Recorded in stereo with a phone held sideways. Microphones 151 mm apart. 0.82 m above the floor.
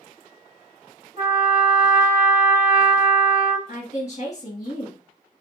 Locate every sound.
1.2 s a trumpet: 45° right (ahead or behind), 1.3 m
3.7 s a woman speaking: 50° left (ahead or behind), 1.6 m